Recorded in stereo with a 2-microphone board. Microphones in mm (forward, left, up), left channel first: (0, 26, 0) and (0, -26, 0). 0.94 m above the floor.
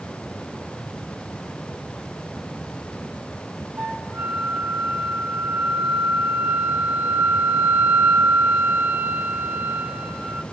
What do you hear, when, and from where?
3.8 s a flute: 40° right (ahead or behind), 1.4 m